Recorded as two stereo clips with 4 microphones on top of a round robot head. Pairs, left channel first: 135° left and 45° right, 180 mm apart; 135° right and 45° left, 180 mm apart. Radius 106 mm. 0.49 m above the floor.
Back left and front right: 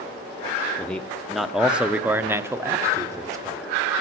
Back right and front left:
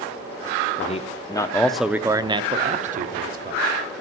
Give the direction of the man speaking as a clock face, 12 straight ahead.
5 o'clock.